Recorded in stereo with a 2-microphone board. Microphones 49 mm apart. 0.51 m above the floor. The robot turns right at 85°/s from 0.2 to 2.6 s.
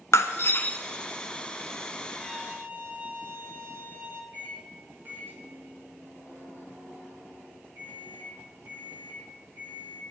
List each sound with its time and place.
0.1 s breaking glass: 105° left, 0.9 m; by 0.8 s 150° left, 0.9 m
2.2 s a violin: 175° right, 1.5 m; by 4.2 s 140° right, 1.5 m
4.3 s a microwave: 45° right (ahead or behind), 6 m